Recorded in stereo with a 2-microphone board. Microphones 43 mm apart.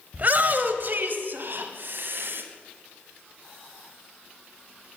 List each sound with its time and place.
0.1 s a shout: 35° right (ahead or behind), 1.1 m; by 2.4 s 55° right (ahead or behind), 2 m